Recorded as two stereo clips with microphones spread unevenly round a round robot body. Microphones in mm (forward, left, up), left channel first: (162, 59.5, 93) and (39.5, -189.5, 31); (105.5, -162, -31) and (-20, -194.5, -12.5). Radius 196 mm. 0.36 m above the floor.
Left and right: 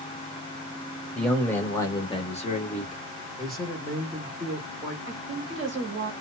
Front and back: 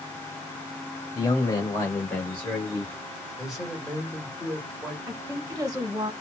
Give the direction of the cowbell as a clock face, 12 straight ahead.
I don't hear a cowbell.